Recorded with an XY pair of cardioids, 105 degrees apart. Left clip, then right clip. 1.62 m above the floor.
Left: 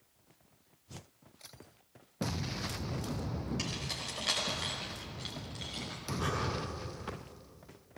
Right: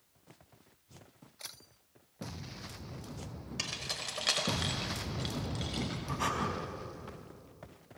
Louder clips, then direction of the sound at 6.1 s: Right 2 dB; 55° right.